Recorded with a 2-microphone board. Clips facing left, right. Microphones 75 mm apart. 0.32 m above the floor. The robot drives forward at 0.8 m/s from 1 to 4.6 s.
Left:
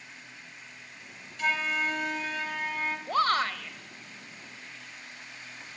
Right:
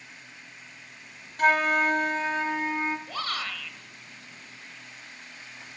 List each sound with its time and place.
1.4 s a flute: 50° right (ahead or behind), 0.5 m; by 3.0 s 20° right (ahead or behind), 1.2 m
3.1 s a shout: 45° left (ahead or behind), 1.1 m; by 3.8 s 40° left (ahead or behind), 1.2 m